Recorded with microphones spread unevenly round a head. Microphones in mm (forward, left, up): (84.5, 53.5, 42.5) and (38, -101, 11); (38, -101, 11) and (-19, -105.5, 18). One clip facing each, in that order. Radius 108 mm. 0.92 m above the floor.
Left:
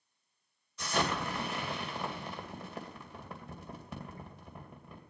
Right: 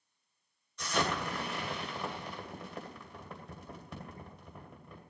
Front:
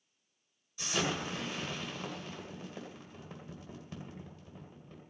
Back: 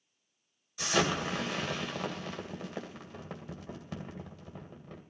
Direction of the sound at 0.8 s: 160° left.